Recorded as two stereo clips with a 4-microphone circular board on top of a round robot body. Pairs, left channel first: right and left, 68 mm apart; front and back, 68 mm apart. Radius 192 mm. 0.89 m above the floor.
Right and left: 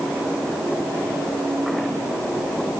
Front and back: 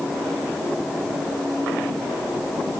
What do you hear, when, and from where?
Only background noise.